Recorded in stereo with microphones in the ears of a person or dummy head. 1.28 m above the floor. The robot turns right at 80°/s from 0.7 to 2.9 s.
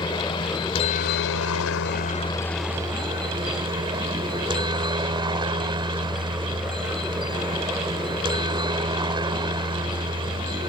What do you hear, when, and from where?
0.0 s a helicopter: 25° left; by 10.7 s 160° right